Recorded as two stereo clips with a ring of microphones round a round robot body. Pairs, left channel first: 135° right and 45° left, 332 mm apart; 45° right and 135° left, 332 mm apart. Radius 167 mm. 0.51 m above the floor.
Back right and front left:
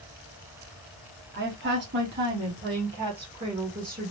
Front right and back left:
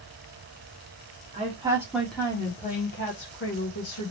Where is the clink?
No clink in this recording.